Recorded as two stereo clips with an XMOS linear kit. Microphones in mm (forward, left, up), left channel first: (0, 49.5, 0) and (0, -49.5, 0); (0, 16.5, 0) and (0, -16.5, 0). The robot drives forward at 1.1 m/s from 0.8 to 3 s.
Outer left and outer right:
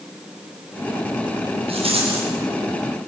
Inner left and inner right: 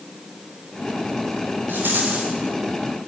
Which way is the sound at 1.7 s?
75° right (ahead or behind).